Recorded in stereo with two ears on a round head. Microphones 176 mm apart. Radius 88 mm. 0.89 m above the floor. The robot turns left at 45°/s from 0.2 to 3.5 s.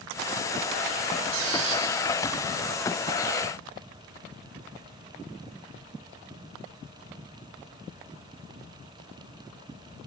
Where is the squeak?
85° right, 8.5 m; by 1.9 s 70° right (ahead or behind), 8.5 m.